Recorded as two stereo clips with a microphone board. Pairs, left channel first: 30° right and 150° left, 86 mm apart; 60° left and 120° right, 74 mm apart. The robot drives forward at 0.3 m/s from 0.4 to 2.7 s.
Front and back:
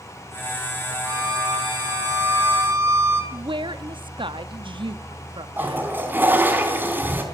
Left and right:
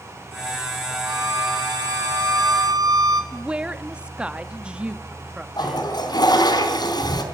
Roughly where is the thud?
I don't hear a thud.